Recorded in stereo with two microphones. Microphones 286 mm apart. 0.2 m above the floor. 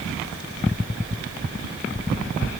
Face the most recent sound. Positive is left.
No sound to turn to.